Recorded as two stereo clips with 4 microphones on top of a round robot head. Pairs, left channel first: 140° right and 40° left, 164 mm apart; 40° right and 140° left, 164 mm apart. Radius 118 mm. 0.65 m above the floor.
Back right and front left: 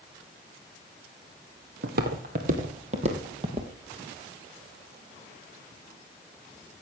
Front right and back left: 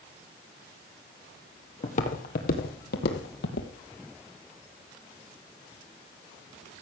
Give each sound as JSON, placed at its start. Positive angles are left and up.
{"t": 1.8, "sound": "footsteps", "azimuth_deg": 10, "distance_m": 1.6}